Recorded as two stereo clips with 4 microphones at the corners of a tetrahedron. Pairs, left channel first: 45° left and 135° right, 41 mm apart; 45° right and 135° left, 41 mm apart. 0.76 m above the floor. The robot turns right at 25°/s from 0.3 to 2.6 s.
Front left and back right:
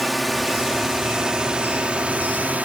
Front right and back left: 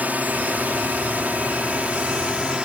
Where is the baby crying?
No baby crying in this recording.